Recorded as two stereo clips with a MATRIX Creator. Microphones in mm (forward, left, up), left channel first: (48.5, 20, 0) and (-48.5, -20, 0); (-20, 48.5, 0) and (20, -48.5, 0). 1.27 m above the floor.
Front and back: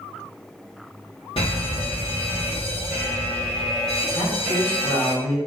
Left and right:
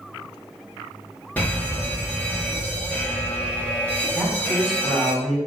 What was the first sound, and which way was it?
A fire alarm, 40° left.